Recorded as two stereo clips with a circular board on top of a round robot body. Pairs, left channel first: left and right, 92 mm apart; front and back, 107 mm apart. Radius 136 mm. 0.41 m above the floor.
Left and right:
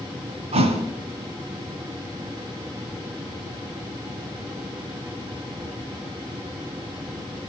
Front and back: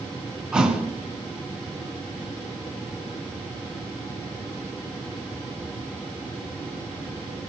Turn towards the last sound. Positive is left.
turn(degrees=-95)